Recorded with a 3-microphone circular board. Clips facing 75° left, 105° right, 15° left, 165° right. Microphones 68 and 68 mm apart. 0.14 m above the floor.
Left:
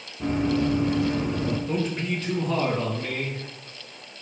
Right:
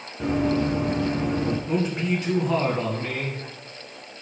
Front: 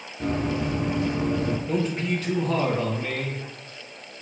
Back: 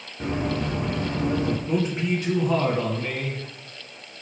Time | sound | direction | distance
0.2 | running footsteps | 95° right | 1.8 m
1.7 | a man speaking | 130° right | 1.5 m